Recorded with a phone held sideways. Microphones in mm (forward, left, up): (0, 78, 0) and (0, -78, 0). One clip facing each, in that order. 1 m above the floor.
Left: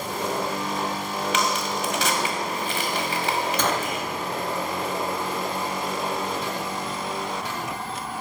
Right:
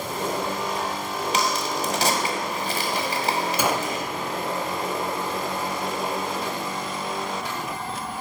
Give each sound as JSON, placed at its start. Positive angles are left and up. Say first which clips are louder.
{"t": 1.3, "sound": "a crack", "louder": "right 1 dB", "side_deg": -40, "distance_m": 1.4}
{"t": 3.6, "sound": "a gunshot", "louder": "right 1 dB", "side_deg": -10, "distance_m": 0.6}